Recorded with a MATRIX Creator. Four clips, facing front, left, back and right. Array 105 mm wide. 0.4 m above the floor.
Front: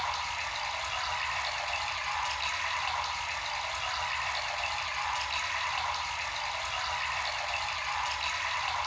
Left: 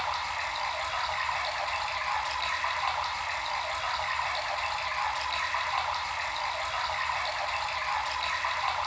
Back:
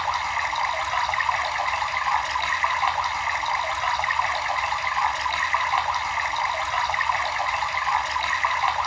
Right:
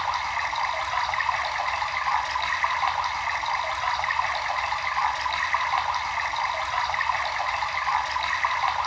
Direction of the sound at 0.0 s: 150° right.